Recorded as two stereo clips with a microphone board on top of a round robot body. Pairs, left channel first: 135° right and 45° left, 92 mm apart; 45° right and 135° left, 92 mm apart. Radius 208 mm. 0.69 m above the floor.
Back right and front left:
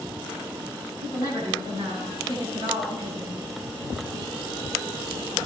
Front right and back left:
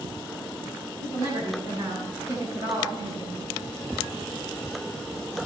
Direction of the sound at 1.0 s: 100° left.